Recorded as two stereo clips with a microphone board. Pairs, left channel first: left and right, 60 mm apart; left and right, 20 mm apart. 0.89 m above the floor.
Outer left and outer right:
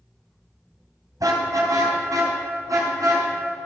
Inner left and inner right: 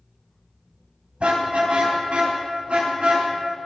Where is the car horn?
70° right (ahead or behind), 3.5 m; by 3.3 s 65° right (ahead or behind), 6.5 m.